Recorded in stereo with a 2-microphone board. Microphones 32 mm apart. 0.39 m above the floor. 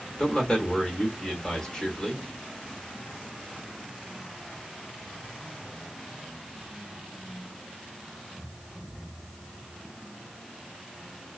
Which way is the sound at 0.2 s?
25° left (ahead or behind).